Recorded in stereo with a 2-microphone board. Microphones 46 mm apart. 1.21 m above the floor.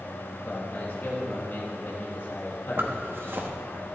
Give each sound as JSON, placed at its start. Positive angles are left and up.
{"t": 0.5, "sound": "a man speaking", "side_deg": 50, "distance_m": 1.5}
{"t": 2.8, "sound": "a zipper", "side_deg": -55, "distance_m": 1.0}